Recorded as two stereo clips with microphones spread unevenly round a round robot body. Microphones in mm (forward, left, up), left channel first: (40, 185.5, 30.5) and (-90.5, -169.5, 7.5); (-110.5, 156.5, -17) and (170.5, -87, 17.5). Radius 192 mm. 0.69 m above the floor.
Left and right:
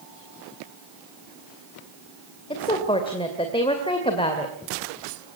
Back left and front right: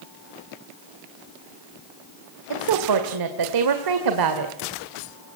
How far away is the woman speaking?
About 2.5 m.